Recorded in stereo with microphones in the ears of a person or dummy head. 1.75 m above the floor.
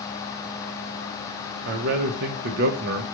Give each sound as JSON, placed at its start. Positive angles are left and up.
{"t": 1.6, "sound": "a man speaking", "side_deg": -70, "distance_m": 0.7}